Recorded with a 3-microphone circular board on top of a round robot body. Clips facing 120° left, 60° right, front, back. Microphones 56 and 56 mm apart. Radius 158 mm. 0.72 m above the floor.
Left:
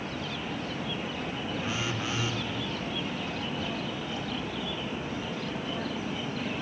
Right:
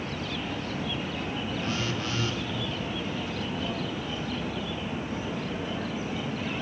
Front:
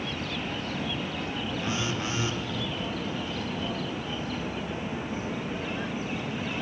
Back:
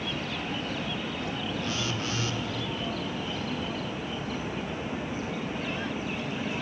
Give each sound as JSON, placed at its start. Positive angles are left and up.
{"t": 1.6, "sound": "a phone buzzing", "azimuth_deg": 50, "distance_m": 0.7}